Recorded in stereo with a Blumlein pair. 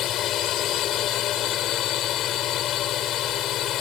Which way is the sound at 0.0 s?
30° left.